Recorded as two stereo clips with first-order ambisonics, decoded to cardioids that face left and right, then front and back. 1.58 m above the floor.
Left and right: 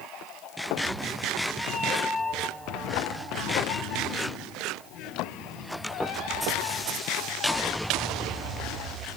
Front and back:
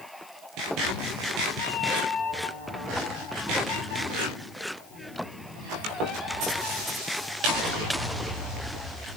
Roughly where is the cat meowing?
Ahead right.